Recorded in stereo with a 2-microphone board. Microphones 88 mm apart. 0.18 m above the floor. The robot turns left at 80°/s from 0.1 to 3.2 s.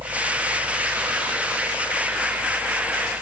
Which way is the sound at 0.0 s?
50° right (ahead or behind).